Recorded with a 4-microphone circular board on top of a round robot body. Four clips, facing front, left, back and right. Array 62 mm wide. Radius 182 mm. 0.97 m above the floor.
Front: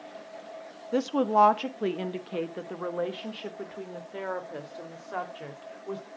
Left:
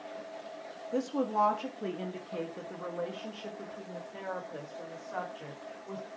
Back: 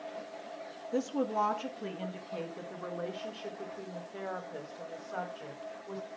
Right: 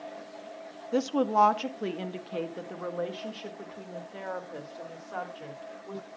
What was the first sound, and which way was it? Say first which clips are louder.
A woman speaking: right 5 dB, front 8 dB; 25° right.